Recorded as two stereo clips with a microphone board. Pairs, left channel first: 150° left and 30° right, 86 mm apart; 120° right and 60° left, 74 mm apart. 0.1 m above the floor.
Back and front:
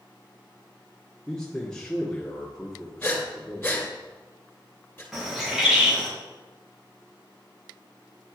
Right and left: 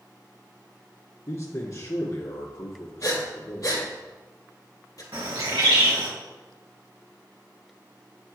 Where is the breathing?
150° right, 2 m.